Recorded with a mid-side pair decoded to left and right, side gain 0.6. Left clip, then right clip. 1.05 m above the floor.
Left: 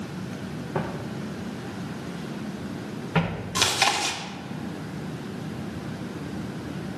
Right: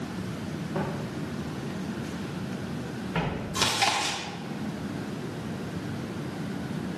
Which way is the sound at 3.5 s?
30° left.